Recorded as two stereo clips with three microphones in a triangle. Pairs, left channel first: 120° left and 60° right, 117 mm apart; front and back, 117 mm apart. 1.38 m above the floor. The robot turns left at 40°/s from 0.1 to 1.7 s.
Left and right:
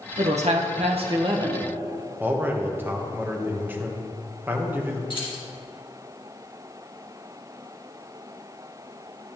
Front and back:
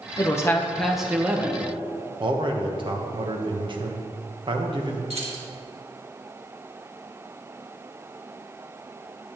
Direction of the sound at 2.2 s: 135° right.